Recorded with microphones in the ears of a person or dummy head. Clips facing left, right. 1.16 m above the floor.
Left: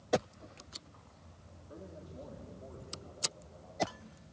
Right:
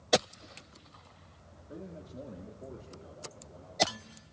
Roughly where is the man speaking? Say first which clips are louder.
Right 4 dB; right.